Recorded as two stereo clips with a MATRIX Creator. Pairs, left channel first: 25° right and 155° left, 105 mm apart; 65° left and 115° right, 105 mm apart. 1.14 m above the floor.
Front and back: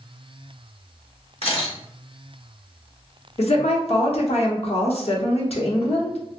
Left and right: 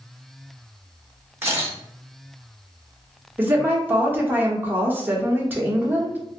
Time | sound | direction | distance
1.4 | a camera shutter | 45° right | 1.1 m
3.4 | a woman speaking | 40° right | 0.9 m